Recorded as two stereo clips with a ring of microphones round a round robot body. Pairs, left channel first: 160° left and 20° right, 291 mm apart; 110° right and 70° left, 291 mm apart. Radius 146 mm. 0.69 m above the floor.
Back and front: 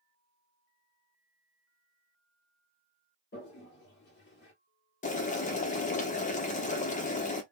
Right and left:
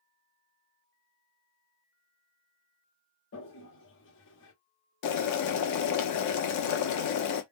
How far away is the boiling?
About 0.8 m.